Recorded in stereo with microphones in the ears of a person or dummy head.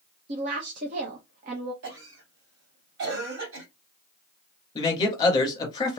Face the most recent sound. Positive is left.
turn(degrees=25)  # may be behind; listen again after turning